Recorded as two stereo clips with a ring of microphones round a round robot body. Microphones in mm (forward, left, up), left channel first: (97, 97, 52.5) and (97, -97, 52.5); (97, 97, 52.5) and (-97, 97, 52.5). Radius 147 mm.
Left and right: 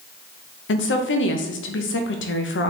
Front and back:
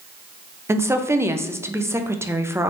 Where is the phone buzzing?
No phone buzzing in this recording.